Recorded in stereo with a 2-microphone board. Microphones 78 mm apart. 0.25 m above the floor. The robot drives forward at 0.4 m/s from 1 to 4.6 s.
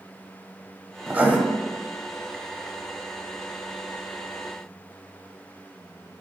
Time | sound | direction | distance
1.1 | writing | 20° right (ahead or behind) | 0.5 m